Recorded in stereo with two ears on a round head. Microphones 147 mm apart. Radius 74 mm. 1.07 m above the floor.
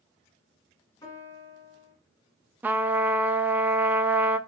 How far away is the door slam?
No door slam in this recording.